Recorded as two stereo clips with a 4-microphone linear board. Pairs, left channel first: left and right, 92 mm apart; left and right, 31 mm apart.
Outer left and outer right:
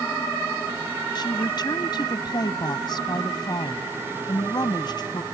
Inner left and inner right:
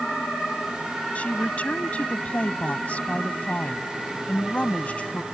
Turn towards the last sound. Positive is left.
turn(degrees=50)  # may be behind; listen again after turning